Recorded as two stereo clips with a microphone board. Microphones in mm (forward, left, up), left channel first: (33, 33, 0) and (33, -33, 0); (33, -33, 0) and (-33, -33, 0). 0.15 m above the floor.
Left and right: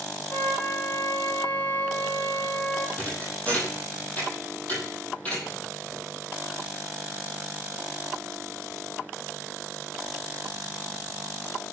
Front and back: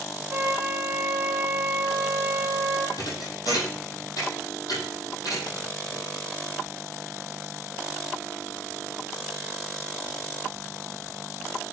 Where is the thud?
25° left, 9 m.